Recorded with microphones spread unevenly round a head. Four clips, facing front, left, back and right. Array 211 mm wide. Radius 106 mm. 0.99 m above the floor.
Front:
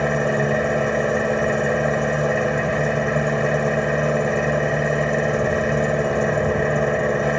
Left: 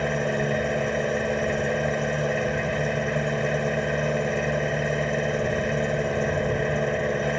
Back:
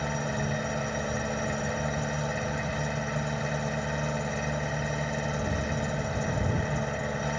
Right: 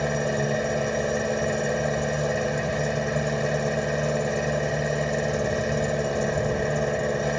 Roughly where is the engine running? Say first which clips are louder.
Even, front 11 dB; ahead.